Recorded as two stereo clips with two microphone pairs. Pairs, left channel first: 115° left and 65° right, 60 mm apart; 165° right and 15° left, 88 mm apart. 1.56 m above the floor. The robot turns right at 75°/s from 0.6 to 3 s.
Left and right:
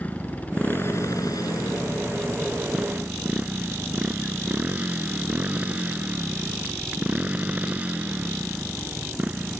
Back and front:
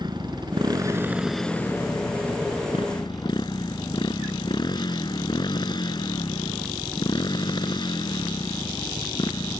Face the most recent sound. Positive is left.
turn(degrees=-130)